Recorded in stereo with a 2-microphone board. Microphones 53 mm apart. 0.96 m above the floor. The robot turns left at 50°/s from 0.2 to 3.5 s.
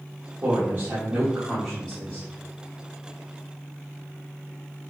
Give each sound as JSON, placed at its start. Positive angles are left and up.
{"t": 0.4, "sound": "a woman speaking", "azimuth_deg": -105, "distance_m": 1.1}